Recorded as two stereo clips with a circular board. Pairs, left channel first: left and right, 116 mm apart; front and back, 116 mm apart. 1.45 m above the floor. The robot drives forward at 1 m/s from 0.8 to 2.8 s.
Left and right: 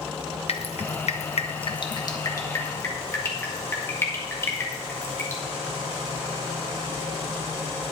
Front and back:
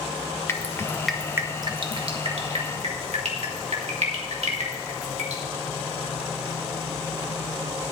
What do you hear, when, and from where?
0.5 s dripping: 65° left, 0.8 m; by 5.4 s 155° left, 1.9 m